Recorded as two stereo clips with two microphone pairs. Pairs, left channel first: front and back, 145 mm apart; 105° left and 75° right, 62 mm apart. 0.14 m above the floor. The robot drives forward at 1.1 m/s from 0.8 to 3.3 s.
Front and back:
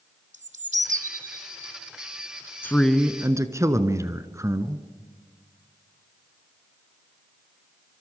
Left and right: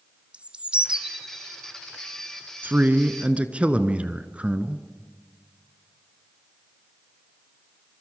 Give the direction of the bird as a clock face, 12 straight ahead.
5 o'clock.